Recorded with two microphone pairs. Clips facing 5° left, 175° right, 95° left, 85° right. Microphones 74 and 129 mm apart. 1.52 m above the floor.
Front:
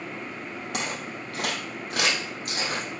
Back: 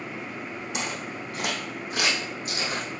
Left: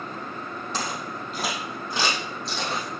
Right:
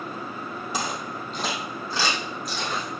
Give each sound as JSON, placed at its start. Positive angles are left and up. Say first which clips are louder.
{"t": 0.7, "sound": "footsteps", "louder": "front 1 dB, right 1 dB", "azimuth_deg": -5, "distance_m": 3.5}